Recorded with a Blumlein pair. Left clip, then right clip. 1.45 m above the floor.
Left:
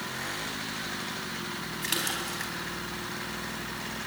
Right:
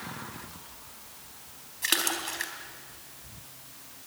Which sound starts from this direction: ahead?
A splash, at 1.8 s.